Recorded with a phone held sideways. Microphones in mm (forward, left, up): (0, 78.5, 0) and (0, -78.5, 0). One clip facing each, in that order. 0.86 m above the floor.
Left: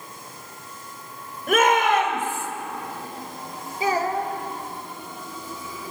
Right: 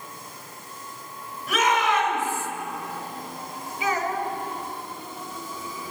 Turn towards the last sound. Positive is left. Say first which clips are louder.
# left 3 dB
turn(degrees=35)  # may be behind; listen again after turning